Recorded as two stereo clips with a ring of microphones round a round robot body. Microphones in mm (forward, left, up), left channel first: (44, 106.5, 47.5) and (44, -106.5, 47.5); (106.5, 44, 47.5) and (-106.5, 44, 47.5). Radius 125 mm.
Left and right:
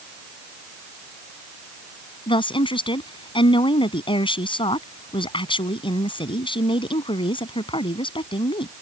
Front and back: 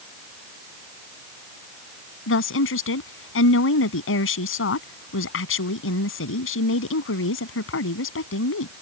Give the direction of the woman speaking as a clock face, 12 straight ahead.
11 o'clock.